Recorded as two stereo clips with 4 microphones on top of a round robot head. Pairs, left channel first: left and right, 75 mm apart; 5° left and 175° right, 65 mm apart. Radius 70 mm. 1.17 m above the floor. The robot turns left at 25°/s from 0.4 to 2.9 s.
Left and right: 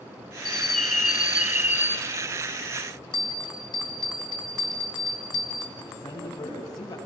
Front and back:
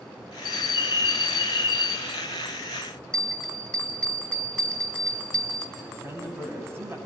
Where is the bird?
Straight ahead, 6 m; by 2.0 s 40° right, 6 m.